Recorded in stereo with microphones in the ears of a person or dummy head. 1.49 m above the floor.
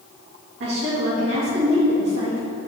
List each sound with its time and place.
0.6 s a woman speaking: 70° right (ahead or behind), 3 m